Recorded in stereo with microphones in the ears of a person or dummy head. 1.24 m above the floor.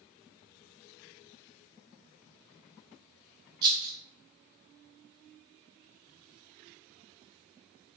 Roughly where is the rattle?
Right.